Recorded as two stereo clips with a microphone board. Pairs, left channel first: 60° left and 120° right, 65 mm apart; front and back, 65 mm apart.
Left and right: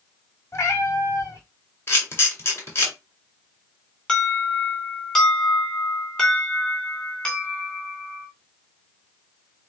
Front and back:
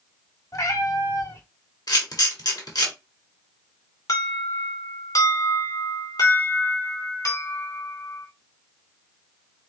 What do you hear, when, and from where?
0.5 s a cat meowing: 20° left, 1.3 m
1.9 s a camera shutter: 5° left, 1.9 m
4.1 s an alarm: 20° right, 2.5 m